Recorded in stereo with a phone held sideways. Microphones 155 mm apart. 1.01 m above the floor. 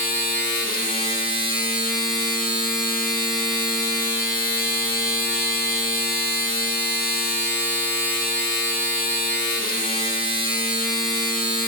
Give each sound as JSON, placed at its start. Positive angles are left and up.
{"t": 0.0, "sound": "a machine running", "side_deg": 65, "distance_m": 1.8}